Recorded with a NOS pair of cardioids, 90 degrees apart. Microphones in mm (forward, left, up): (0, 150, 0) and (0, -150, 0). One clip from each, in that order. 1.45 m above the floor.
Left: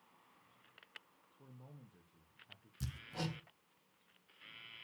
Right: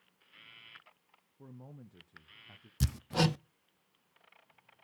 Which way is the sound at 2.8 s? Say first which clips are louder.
Right 13 dB; 60° right.